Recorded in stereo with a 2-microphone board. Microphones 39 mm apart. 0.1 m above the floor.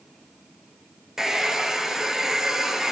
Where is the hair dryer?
10° right (ahead or behind), 0.7 m.